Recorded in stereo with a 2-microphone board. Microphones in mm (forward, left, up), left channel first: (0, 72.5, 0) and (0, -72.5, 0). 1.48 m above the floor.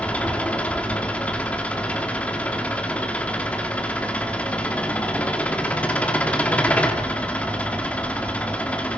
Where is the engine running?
10° left (ahead or behind), 2.5 m.